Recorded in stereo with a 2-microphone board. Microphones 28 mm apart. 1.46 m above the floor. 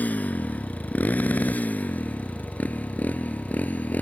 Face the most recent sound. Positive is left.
turn(degrees=85)